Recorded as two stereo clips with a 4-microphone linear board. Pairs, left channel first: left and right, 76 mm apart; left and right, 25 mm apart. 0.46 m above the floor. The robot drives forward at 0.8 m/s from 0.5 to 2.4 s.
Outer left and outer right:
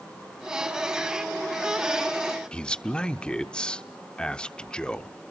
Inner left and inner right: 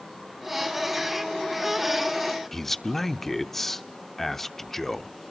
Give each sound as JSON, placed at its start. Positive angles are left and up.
{"t": 2.5, "sound": "a man speaking", "side_deg": 10, "distance_m": 0.7}